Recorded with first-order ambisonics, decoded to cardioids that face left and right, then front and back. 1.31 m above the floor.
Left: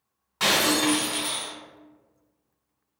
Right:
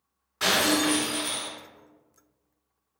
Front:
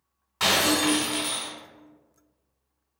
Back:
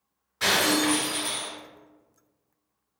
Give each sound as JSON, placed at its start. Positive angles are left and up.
{"t": 0.4, "sound": "breaking glass", "azimuth_deg": 40, "distance_m": 1.8}